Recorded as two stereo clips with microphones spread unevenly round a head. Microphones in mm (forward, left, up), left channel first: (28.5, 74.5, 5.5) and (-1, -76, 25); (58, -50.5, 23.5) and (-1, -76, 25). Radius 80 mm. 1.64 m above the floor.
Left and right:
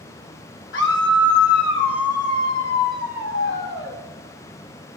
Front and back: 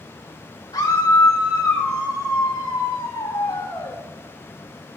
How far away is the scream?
About 3 m.